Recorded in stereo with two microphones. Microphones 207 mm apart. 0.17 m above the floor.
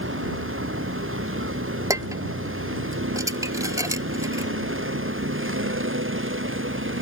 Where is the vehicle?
90° right; by 7.0 s 80° right.